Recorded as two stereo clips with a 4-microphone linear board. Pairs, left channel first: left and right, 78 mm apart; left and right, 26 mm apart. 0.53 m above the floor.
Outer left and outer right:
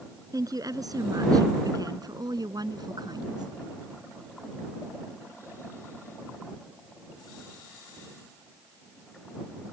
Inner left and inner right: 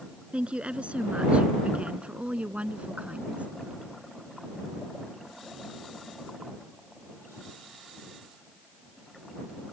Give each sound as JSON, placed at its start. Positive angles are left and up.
{"t": 0.3, "sound": "a woman speaking", "side_deg": -50}